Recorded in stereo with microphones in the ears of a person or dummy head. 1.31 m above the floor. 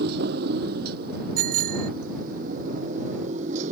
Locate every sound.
0.0 s a motorcycle: 65° right (ahead or behind); by 3.7 s 45° right (ahead or behind)
1.4 s a bicycle bell: 55° right (ahead or behind)